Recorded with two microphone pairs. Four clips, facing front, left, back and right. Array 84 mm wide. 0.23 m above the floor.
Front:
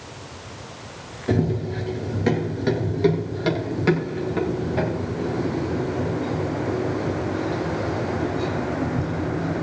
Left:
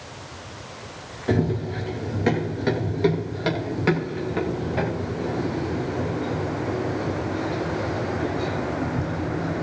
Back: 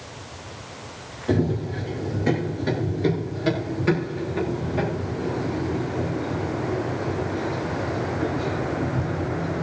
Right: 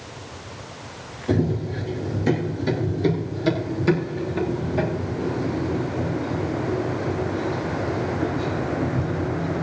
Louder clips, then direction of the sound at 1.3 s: Even, even; 70° left.